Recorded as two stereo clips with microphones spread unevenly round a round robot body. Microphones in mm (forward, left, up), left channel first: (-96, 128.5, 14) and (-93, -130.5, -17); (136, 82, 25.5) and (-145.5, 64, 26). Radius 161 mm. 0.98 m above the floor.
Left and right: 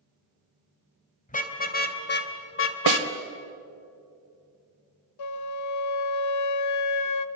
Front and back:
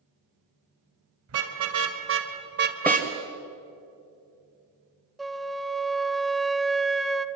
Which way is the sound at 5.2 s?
95° left.